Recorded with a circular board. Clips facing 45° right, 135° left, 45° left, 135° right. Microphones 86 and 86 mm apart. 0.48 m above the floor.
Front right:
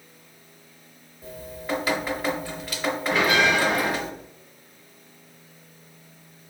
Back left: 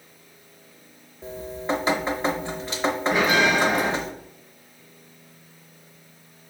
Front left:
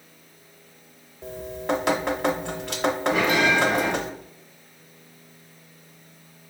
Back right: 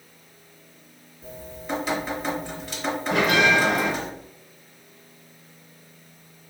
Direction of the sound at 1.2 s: 75° left.